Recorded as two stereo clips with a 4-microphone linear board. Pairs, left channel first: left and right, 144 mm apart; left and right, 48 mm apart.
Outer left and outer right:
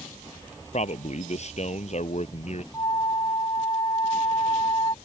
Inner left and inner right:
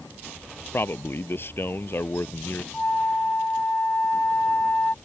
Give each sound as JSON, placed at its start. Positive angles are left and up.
{"t": 0.7, "sound": "a man speaking", "side_deg": 50}
{"t": 2.7, "sound": "a flute", "side_deg": 30}